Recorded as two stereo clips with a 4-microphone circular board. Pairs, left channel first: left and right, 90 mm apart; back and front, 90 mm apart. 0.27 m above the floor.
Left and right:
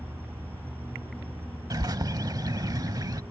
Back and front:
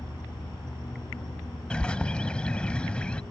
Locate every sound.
0.0 s an insect: 155° right
1.7 s a bird: 105° right